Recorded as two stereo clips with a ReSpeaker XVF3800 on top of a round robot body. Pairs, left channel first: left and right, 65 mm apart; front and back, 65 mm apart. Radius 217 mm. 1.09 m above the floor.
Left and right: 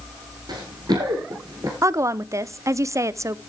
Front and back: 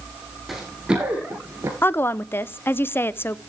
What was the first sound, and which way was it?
Running footsteps, 95° right.